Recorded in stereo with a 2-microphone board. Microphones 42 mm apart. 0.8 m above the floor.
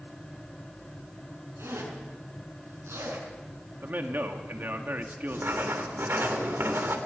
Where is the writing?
65° right (ahead or behind), 2.5 m.